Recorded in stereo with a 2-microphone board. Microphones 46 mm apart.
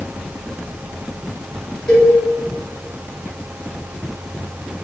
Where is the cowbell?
10° left (ahead or behind), 1.3 m.